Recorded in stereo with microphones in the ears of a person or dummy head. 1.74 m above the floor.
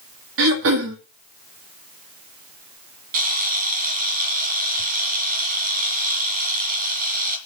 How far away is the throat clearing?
About 2 m.